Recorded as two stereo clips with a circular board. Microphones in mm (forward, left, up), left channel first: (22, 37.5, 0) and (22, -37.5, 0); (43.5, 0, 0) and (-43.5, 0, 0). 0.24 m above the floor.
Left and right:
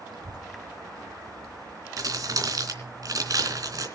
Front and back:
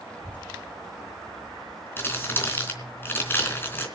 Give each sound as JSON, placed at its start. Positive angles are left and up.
{"t": 0.1, "sound": "a child speaking", "azimuth_deg": -75, "distance_m": 3.5}
{"t": 2.0, "sound": "crumpling", "azimuth_deg": -60, "distance_m": 3.5}